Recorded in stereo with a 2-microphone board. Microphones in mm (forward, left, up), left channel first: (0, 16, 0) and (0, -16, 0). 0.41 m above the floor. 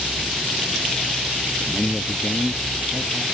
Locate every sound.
1.6 s a man speaking: 15° left (ahead or behind); by 3.2 s 25° left (ahead or behind)